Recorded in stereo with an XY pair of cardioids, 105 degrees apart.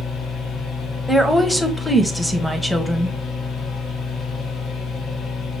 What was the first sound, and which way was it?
A machine running, 70° left.